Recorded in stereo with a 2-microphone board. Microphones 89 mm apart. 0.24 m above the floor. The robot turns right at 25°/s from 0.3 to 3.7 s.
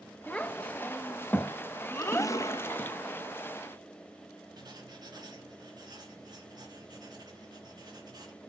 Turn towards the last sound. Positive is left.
turn(degrees=-45)  # may be behind; listen again after turning